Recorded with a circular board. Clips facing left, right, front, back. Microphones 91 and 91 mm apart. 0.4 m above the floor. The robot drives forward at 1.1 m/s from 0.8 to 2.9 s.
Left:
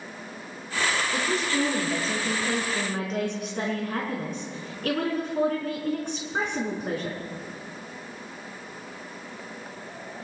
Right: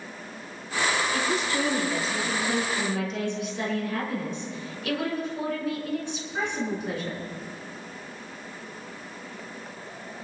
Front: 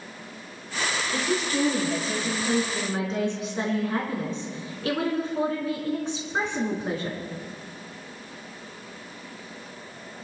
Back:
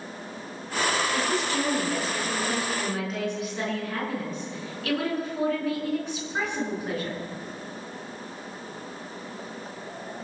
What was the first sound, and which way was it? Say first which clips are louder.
A woman speaking: even, even; 40° left.